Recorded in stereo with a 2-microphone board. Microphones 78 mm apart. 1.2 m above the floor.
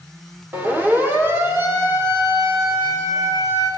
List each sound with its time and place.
0.5 s a siren: 25° right (ahead or behind), 4.5 m; by 3.7 s 45° right (ahead or behind), 6.5 m